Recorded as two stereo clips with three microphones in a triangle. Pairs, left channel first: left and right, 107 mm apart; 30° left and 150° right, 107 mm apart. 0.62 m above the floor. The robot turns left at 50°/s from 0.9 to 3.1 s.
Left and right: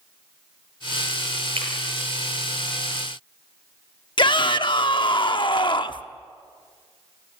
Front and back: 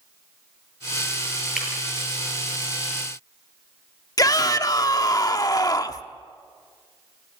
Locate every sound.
1.6 s breaking glass: 60° right, 8 m; by 1.7 s 70° right, 8 m
4.2 s a shout: 75° left, 1.0 m